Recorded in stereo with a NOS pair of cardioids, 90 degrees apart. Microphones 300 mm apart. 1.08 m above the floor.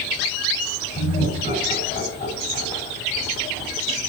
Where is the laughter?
35° left, 6 m.